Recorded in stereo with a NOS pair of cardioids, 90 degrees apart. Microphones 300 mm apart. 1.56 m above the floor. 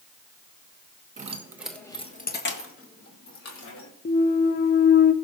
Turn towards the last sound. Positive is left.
turn(degrees=30)